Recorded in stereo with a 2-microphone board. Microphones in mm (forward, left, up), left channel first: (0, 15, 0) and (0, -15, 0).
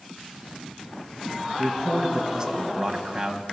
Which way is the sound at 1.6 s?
25° right (ahead or behind).